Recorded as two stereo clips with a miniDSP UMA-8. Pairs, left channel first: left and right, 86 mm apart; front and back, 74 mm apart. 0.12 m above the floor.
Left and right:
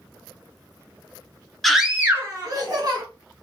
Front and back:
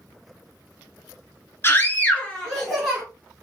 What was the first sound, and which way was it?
A scream, 5° left.